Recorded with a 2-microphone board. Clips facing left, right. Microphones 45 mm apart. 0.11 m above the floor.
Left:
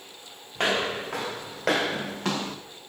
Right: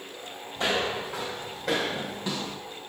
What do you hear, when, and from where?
0.6 s footsteps: 60° left (ahead or behind), 2.5 m; by 2.6 s 55° left (ahead or behind), 1.0 m